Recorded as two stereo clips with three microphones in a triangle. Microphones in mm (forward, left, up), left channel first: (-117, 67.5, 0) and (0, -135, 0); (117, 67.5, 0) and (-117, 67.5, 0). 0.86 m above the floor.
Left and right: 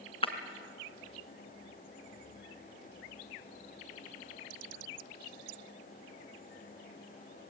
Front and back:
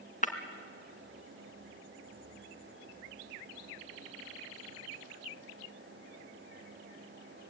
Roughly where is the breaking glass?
Ahead left.